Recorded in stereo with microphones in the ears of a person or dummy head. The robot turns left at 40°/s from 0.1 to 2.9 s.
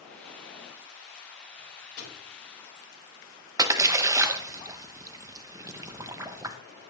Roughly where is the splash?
Centre.